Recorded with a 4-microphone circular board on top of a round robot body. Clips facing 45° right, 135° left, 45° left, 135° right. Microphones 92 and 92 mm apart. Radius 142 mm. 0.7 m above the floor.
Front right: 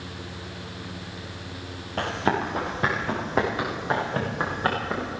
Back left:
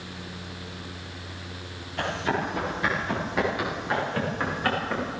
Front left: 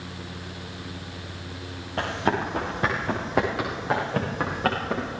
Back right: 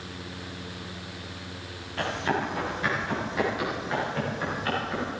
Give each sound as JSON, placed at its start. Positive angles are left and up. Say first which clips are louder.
{"t": 2.0, "sound": "running footsteps", "louder": "front right 2 dB, front left 2 dB", "azimuth_deg": -5, "distance_m": 7.5}